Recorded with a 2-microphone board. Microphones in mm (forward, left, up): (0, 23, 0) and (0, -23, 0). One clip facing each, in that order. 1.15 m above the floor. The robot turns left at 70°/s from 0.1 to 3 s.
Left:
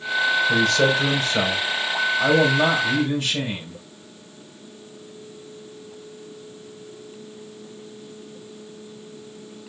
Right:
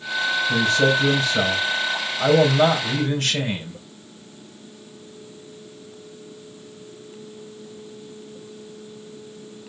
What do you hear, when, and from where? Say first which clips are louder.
0.5 s a man speaking: right 3 dB; 110° left, 4.5 m; by 3.8 s 65° right, 4.5 m